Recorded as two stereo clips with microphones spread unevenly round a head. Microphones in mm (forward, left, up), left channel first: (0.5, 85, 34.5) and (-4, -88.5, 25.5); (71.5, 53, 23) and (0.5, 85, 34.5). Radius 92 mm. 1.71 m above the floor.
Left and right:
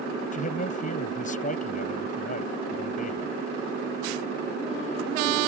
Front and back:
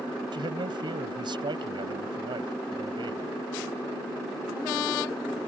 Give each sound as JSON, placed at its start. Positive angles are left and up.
{"t": 0.3, "sound": "a man speaking", "azimuth_deg": 135}